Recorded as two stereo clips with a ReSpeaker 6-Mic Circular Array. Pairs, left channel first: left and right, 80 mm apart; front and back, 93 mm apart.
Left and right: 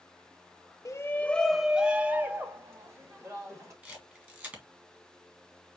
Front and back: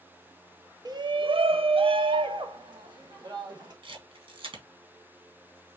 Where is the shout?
135° left, 0.6 m; by 3.7 s 140° right, 1.9 m.